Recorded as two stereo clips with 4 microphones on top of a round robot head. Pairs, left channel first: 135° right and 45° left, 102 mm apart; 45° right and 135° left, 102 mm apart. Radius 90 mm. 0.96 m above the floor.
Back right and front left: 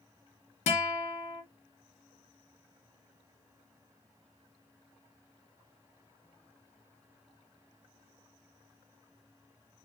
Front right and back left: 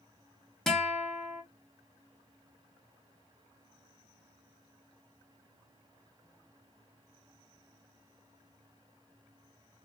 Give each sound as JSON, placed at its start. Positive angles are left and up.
{"t": 0.7, "sound": "a guitar", "azimuth_deg": -130, "distance_m": 0.9}